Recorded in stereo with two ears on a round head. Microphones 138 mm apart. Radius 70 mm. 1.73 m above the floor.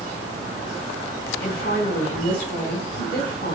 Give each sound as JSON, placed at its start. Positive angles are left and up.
{"t": 1.4, "sound": "a woman speaking", "side_deg": 65, "distance_m": 5.5}